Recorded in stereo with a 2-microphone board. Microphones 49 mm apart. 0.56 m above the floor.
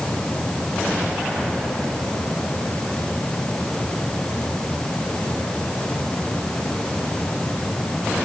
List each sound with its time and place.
Only background noise.